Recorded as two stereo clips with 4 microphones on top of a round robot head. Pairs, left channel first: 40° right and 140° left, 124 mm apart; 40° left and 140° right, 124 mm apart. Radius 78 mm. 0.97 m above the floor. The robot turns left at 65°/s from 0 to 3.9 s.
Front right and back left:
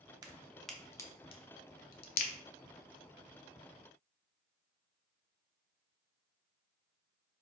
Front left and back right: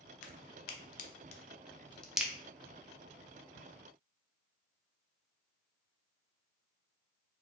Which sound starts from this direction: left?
A crack, at 0.2 s.